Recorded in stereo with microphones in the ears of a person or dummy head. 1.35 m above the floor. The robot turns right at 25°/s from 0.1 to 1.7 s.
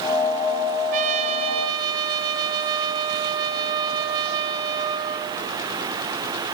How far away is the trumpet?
About 1.0 m.